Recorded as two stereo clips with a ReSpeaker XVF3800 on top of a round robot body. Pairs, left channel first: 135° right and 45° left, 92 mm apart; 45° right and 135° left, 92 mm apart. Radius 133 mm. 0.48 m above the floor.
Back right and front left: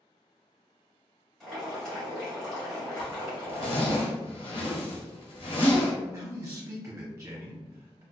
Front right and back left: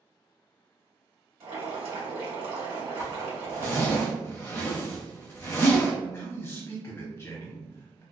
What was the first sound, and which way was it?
Boiling, 140° left.